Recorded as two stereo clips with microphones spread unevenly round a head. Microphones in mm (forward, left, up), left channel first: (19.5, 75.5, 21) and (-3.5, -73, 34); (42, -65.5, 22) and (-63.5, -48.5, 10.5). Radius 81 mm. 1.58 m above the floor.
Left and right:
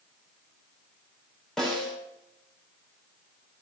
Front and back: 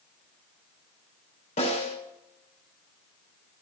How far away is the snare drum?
About 5.5 m.